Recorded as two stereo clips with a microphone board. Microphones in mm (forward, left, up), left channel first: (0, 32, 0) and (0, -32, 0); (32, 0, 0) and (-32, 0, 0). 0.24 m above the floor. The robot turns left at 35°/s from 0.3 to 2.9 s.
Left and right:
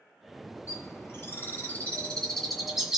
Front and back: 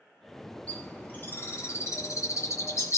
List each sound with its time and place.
0.7 s a bird: 65° left, 1.9 m; by 3.0 s 10° right, 1.9 m